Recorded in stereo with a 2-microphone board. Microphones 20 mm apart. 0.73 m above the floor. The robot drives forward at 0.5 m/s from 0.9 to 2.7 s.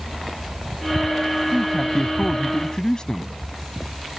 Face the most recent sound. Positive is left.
turn(degrees=35)  # may be behind; listen again after turning